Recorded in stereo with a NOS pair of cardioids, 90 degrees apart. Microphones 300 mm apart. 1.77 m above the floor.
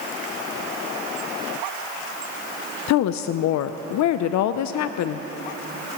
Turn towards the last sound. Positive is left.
turn(degrees=70)